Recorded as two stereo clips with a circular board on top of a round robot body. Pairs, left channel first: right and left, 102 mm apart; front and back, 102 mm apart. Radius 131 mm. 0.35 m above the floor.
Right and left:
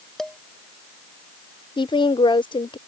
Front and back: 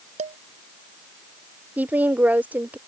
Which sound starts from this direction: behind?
Dishes clattering, at 0.2 s.